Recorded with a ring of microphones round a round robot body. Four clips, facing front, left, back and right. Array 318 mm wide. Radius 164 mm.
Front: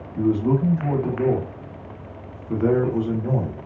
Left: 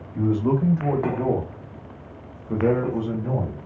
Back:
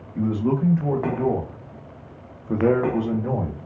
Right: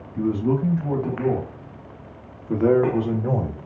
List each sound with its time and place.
0.1 s a man speaking: 105° left, 1.3 m; by 3.6 s 115° right, 1.2 m